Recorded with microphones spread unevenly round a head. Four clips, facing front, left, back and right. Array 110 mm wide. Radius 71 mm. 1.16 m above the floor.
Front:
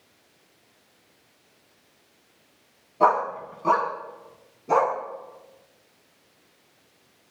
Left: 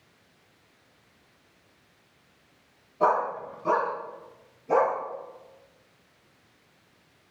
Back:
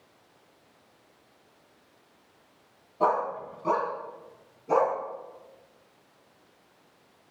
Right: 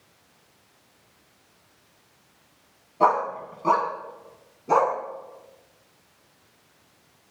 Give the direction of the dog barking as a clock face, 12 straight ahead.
1 o'clock.